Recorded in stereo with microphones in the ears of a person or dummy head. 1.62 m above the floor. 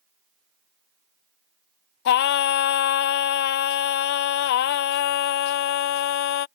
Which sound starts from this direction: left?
Singing, at 2.0 s.